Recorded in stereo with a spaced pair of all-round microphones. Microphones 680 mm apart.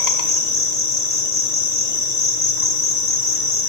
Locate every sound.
0.0 s an insect: 70° left (ahead or behind), 1.0 m